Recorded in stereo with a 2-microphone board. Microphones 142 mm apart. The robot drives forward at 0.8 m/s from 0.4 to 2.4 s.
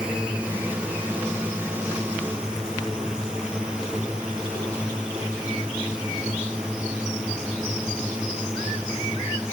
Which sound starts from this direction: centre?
A drone, at 0.0 s.